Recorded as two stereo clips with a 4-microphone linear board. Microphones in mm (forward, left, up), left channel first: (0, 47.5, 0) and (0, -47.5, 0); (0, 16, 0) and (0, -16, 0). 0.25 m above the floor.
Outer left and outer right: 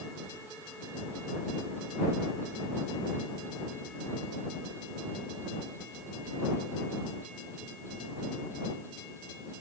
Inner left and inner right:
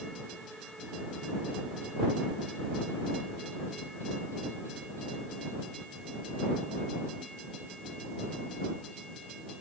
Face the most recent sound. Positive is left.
No sound to turn to.